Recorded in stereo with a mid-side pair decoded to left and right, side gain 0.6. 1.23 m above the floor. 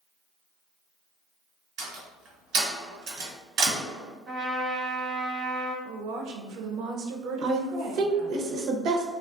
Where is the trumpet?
55° right, 0.8 m.